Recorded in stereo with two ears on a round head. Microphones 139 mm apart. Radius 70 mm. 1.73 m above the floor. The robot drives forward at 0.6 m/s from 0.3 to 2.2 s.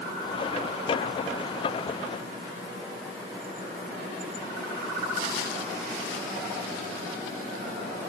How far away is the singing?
No singing in this recording.